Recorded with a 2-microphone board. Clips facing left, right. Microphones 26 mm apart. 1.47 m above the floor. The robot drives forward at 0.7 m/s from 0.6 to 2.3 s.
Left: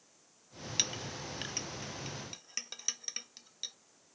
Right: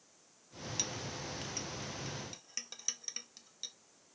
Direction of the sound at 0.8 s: 45° left (ahead or behind).